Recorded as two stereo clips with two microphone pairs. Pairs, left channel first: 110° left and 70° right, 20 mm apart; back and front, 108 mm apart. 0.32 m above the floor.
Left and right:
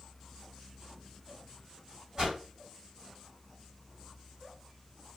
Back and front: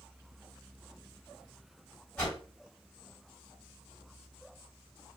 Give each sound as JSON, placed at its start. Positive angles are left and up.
{"t": 2.2, "sound": "a whoosh", "azimuth_deg": -105, "distance_m": 1.8}